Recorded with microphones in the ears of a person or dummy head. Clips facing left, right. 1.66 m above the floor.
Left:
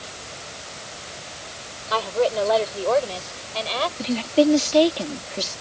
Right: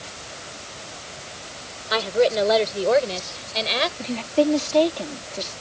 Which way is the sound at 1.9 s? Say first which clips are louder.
Right 2 dB; 25° right (ahead or behind).